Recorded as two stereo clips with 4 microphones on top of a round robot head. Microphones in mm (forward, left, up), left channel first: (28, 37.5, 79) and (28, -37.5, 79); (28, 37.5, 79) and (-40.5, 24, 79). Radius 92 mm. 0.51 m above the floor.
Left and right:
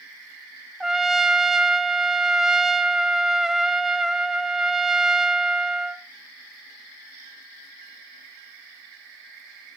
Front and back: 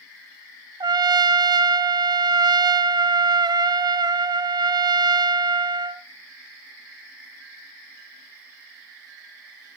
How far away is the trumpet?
About 0.8 m.